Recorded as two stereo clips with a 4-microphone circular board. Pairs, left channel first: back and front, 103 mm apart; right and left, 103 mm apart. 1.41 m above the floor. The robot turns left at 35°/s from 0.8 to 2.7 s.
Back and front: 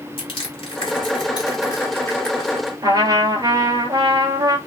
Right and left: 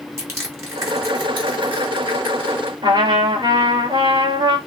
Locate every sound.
0.2 s crushing: 155° left, 2.5 m; by 2.7 s 85° left, 2.5 m
2.8 s a trumpet: 50° left, 2.5 m